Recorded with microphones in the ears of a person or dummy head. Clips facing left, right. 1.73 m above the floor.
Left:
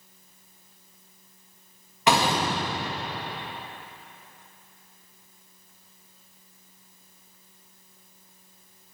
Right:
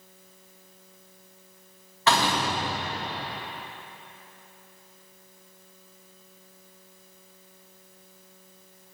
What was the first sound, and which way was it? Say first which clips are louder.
A door slam: left 2 dB; 15° left (ahead or behind).